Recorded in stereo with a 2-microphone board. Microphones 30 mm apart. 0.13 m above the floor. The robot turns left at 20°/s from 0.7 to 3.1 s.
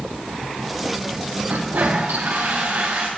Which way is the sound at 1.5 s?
85° right.